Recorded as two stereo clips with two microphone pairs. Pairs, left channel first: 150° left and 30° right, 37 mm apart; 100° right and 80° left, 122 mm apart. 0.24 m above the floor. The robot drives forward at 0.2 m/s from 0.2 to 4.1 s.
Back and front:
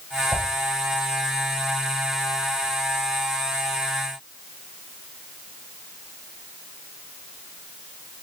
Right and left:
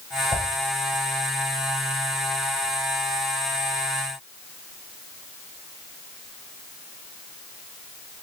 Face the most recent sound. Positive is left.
turn(degrees=-125)